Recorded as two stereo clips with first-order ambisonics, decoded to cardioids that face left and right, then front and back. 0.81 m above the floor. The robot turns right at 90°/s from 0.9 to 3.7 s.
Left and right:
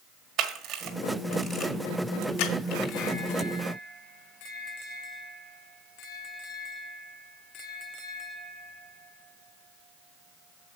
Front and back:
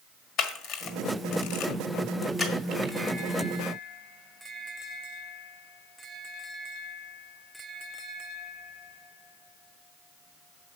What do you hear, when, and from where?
0.4 s a camera shutter: 40° right, 1.5 m; by 2.9 s 140° left, 1.5 m